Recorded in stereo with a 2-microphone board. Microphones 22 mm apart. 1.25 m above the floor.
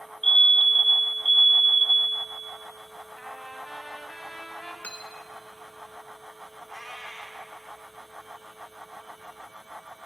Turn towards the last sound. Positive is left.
turn(degrees=25)  # may be behind; listen again after turning